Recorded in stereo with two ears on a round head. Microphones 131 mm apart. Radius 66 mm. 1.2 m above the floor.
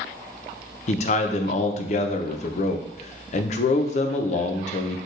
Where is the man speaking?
55° left (ahead or behind), 0.6 m.